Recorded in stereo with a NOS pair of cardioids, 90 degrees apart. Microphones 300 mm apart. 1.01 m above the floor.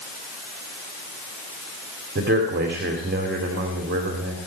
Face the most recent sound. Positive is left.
turn(degrees=-35)